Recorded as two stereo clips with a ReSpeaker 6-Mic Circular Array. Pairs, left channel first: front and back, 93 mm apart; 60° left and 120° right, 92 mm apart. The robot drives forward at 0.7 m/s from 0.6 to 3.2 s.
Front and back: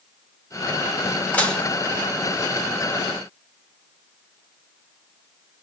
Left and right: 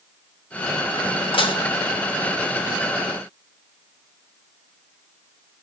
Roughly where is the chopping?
I don't hear chopping.